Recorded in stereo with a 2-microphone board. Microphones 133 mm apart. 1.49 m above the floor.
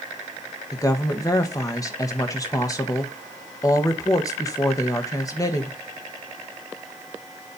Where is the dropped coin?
I don't hear a dropped coin.